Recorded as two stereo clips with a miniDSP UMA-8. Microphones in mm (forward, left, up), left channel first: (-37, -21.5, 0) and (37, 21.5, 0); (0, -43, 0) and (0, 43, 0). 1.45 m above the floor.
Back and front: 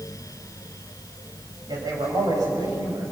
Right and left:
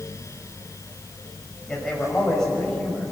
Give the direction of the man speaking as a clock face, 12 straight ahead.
12 o'clock.